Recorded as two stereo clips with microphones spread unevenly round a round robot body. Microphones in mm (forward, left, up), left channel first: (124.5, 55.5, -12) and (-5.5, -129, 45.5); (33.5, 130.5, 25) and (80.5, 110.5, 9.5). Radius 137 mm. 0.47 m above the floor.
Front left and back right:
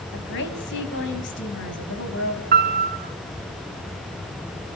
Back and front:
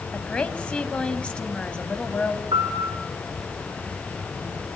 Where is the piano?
85° right, 1.6 m.